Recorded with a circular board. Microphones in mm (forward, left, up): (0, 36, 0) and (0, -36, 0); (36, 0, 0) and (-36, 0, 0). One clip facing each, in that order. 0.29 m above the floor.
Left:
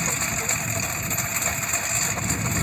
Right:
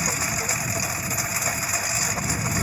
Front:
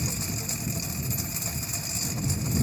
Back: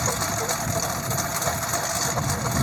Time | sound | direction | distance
0.0 | a lawn mower | 175° right | ?